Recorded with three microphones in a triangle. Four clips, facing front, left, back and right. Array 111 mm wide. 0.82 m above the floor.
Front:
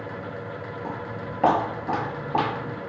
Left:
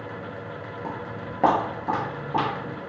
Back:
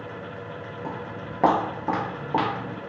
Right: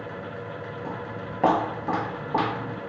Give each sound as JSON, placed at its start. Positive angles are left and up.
{"t": 0.8, "sound": "footsteps", "azimuth_deg": 85, "distance_m": 0.8}